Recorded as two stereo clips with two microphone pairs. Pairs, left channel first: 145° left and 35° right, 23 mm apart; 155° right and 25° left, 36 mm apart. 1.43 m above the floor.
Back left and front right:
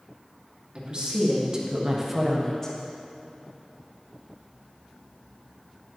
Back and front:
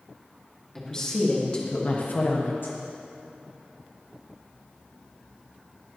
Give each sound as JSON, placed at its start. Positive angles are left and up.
{"t": 0.8, "sound": "a woman speaking", "azimuth_deg": -80, "distance_m": 2.5}